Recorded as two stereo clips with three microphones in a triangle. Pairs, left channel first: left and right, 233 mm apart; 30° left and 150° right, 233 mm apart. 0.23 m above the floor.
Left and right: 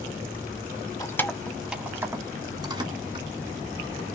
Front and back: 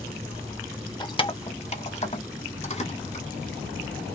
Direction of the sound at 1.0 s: 45° left.